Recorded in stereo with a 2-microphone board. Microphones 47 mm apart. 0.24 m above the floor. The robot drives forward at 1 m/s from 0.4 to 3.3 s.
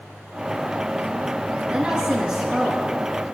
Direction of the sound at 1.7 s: 30° right (ahead or behind).